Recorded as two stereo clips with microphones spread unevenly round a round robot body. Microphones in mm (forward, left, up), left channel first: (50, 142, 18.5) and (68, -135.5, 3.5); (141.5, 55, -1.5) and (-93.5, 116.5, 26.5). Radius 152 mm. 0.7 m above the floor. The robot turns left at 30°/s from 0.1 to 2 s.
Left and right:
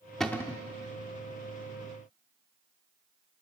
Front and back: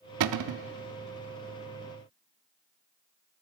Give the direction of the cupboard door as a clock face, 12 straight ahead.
6 o'clock.